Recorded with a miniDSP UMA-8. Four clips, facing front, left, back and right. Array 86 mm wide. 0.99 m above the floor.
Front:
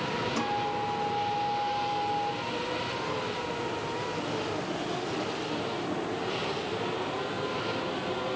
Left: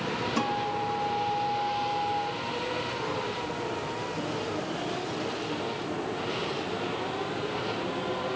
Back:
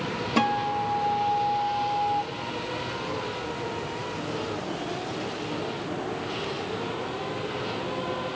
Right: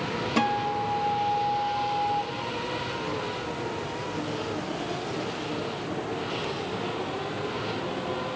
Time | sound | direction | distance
0.4 | a guitar | 150° right | 1.0 m